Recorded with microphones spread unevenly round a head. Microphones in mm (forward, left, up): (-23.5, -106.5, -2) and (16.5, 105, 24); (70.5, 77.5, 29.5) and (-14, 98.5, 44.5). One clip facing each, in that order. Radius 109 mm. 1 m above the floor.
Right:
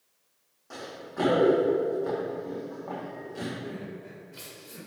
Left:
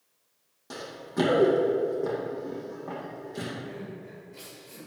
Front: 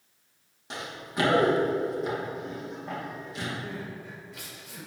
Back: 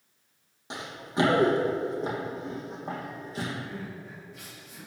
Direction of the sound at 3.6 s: 25° right.